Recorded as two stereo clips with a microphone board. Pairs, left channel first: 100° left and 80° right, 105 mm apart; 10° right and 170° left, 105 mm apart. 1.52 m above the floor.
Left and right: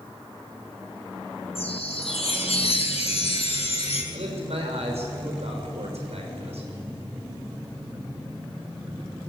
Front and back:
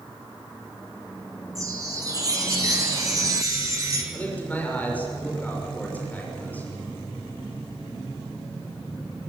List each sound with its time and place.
1.6 s a chime: 115° left, 4 m
4.1 s a man speaking: 85° right, 6.5 m